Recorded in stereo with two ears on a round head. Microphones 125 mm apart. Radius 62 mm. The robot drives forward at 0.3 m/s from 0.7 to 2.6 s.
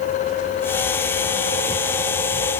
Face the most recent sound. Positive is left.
No sound to turn to.